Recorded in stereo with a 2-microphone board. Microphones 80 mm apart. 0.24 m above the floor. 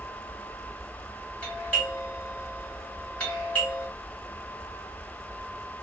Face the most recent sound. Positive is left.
turn(degrees=15)  # may be behind; listen again after turning